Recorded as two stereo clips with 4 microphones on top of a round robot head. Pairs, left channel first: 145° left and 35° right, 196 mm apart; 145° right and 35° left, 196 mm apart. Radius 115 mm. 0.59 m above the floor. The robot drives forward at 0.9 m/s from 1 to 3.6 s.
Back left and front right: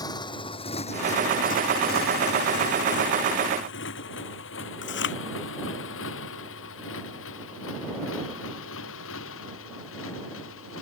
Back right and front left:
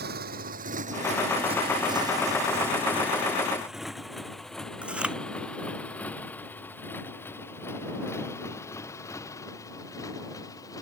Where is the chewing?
120° left.